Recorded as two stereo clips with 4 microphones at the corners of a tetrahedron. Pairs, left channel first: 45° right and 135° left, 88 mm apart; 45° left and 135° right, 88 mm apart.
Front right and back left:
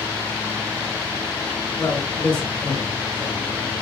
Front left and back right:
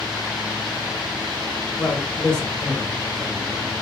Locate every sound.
1.8 s a man speaking: 40° left, 0.9 m; by 3.7 s 80° right, 1.1 m